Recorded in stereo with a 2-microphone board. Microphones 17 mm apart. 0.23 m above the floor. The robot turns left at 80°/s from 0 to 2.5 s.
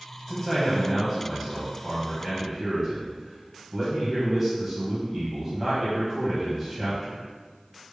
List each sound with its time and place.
0.3 s a man speaking: 15° left (ahead or behind), 1.4 m; by 7.2 s 15° right (ahead or behind), 1.4 m